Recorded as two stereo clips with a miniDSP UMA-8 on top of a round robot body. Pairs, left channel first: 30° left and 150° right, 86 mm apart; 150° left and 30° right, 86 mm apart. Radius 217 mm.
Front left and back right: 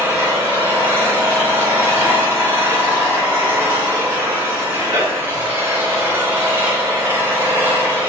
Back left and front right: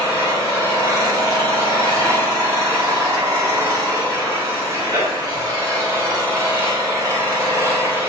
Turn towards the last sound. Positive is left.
turn(degrees=-85)